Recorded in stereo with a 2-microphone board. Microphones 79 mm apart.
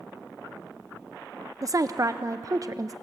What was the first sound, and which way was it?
A woman speaking, 45° right (ahead or behind).